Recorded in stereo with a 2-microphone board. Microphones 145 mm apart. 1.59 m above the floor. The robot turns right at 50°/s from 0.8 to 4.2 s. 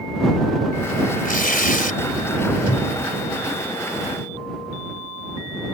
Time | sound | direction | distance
1.2 | tearing paper | 75° left | ?
2.7 | a cupboard door | 45° left (ahead or behind) | ?